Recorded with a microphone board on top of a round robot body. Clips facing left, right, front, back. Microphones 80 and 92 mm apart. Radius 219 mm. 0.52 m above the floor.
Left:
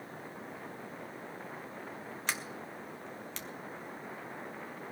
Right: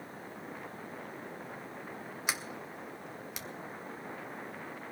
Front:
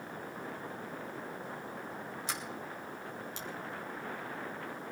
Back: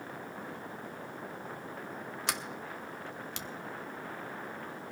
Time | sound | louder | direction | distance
2.3 | a sliding door | right 1 dB, back 4 dB | 170° right | 1.1 m